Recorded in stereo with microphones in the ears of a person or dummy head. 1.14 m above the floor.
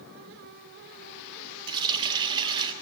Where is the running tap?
30° right (ahead or behind), 1.1 m.